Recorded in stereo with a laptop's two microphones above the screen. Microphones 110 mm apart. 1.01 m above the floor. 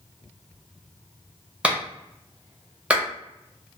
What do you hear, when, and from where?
1.6 s a clap: 10° right (ahead or behind), 0.5 m